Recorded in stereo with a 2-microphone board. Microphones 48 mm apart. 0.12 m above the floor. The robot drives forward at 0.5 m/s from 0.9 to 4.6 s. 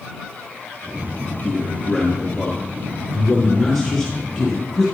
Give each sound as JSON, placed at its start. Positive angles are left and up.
{"t": 1.4, "sound": "a man speaking", "side_deg": 0, "distance_m": 1.6}